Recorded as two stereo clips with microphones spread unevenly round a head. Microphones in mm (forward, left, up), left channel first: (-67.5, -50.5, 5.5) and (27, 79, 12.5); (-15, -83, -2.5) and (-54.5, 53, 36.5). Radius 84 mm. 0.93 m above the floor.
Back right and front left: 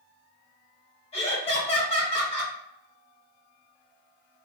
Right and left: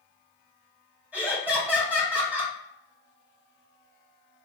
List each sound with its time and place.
1.1 s laughter: 165° right, 1.4 m